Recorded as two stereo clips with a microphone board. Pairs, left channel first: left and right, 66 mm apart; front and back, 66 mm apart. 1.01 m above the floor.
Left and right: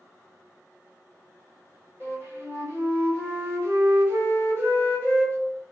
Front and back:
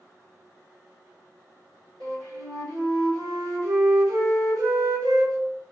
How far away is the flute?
About 1.2 m.